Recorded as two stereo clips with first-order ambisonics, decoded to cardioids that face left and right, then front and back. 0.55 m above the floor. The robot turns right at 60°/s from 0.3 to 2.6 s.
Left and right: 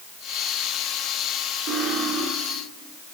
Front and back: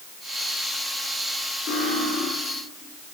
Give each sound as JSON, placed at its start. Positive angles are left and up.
{"t": 1.7, "sound": "cutlery clinking", "azimuth_deg": -45, "distance_m": 10.0}